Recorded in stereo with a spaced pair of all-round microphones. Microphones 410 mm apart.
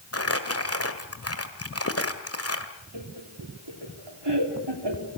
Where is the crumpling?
35° left (ahead or behind), 1.8 m.